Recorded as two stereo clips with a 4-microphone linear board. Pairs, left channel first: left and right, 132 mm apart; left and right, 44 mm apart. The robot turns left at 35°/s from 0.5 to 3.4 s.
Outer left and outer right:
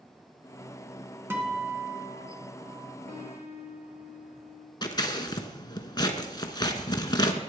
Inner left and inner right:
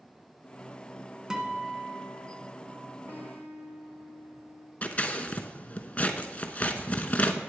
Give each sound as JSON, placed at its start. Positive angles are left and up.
{"t": 1.3, "sound": "a guitar", "side_deg": -15, "distance_m": 1.7}
{"t": 3.1, "sound": "a piano", "side_deg": -75, "distance_m": 2.5}
{"t": 4.8, "sound": "scissors", "side_deg": 35, "distance_m": 0.9}